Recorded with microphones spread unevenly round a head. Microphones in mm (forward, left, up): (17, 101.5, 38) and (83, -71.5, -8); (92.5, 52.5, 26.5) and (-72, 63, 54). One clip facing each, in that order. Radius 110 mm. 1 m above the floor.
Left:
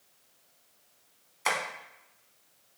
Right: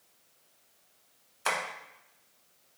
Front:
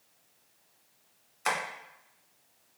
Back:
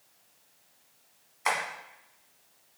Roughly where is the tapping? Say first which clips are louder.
Left 1 dB, back 1 dB; ahead left.